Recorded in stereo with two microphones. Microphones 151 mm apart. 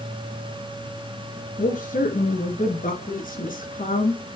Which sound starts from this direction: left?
A woman speaking, at 1.6 s.